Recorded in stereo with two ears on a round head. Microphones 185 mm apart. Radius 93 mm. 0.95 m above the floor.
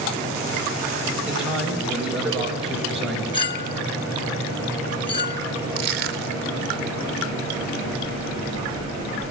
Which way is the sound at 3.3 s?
25° left (ahead or behind).